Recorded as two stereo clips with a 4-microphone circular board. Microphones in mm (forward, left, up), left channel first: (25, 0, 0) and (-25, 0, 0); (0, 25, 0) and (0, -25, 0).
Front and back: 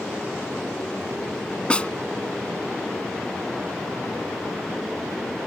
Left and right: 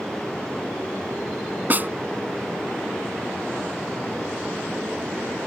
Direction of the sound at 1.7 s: 60° right.